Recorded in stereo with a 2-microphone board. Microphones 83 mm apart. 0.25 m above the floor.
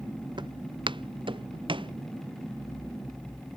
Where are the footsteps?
65° right (ahead or behind); by 1.9 s 80° right.